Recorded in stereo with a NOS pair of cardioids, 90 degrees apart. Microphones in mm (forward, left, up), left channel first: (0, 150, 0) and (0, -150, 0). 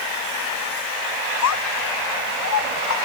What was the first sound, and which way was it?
A child speaking, 65° left.